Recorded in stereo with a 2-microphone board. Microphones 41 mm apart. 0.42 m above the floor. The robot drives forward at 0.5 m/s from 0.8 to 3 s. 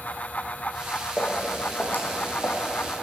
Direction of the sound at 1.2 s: 25° left (ahead or behind).